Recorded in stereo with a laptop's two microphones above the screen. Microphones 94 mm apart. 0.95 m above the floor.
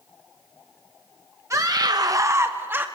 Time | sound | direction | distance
1.5 | a scream | 30° right (ahead or behind) | 0.8 m